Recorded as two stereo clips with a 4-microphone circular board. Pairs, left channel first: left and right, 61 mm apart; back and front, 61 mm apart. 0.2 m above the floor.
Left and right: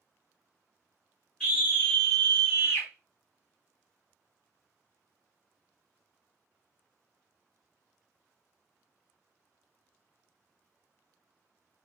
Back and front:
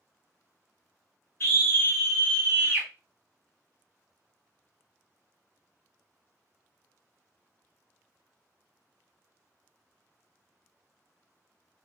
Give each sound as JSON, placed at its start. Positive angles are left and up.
{"t": 1.4, "sound": "a scream", "azimuth_deg": 160, "distance_m": 1.5}